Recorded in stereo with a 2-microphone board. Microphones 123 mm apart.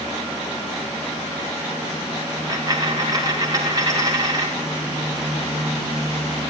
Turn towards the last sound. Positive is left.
turn(degrees=-30)  # may be behind; listen again after turning